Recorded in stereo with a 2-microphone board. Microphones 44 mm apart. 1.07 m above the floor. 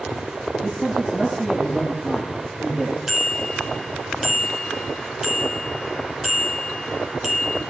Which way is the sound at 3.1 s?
10° right (ahead or behind).